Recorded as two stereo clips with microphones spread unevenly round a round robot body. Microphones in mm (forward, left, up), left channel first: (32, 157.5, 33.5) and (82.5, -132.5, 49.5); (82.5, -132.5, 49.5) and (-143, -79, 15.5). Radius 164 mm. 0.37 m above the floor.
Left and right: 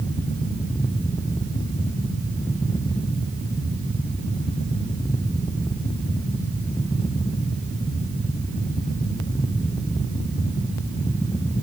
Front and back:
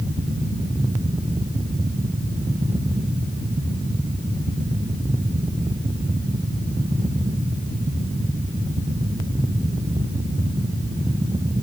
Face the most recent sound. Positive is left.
No sound to turn to.